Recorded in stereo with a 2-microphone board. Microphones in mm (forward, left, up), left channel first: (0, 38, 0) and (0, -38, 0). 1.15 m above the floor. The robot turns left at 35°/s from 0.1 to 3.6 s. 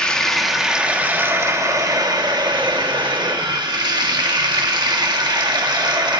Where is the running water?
10° left, 1.6 m; by 6.2 s 110° right, 1.6 m.